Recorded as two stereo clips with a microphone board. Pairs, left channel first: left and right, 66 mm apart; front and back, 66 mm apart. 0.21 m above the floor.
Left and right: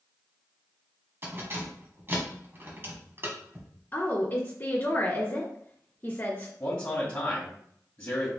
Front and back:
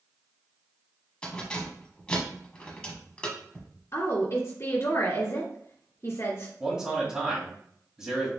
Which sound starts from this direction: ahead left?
A woman speaking, at 3.9 s.